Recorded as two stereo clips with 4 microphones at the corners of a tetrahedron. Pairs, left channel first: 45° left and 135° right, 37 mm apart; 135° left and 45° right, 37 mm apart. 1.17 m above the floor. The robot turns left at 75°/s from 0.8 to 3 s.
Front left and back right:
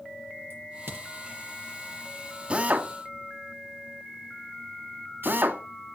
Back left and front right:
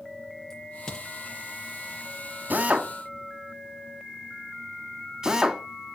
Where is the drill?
75° right, 2 m; by 5.6 s 115° right, 2 m.